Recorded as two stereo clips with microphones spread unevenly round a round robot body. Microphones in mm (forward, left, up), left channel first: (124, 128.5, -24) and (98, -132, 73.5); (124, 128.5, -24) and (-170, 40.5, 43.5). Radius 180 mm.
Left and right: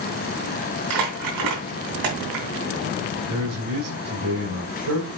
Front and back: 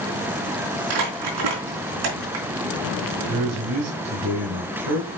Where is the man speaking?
130° right, 2 m.